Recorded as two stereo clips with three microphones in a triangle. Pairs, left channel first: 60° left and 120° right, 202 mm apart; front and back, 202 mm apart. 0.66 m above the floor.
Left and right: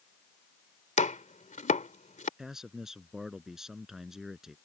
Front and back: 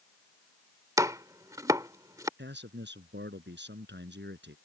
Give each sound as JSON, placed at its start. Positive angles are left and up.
{"t": 1.0, "sound": "chopping", "azimuth_deg": 105}
{"t": 2.4, "sound": "a man speaking", "azimuth_deg": 150}